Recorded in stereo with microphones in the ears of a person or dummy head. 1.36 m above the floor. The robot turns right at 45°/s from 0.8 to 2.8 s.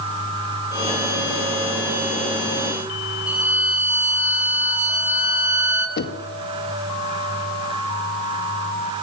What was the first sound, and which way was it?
A violin, 5° right (ahead or behind).